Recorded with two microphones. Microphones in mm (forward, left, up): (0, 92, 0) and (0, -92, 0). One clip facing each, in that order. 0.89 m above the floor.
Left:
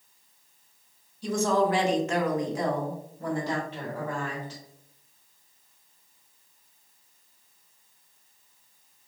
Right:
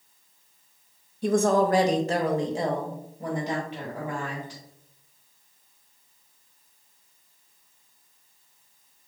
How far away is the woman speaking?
About 0.5 m.